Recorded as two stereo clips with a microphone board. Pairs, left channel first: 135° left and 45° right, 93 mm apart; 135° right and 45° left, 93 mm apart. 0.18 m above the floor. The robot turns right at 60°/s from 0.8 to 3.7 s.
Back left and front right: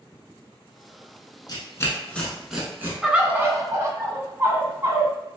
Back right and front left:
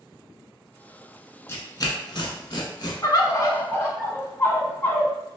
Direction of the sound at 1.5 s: 170° left.